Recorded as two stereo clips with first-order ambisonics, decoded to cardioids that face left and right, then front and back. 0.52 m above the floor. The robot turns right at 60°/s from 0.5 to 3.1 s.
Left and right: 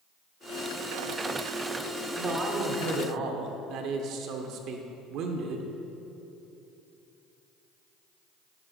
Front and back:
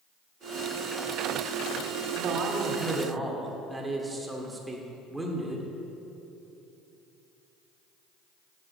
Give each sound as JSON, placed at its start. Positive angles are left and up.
{"t": 2.1, "sound": "a man speaking", "azimuth_deg": -155, "distance_m": 1.3}